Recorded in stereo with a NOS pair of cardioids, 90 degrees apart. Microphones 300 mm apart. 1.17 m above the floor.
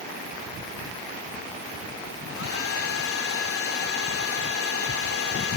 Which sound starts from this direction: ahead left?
A hair dryer, at 2.3 s.